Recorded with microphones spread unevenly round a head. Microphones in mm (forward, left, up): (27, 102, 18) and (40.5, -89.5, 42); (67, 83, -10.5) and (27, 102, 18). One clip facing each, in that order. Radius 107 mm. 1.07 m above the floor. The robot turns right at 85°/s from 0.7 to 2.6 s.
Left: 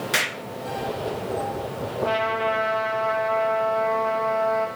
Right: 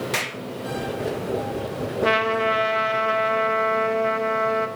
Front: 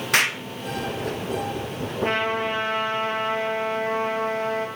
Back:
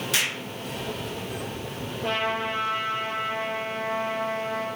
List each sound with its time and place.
0.1 s an explosion: 10° left, 0.7 m
2.0 s a trumpet: 85° right, 1.2 m; by 4.7 s 35° right, 1.2 m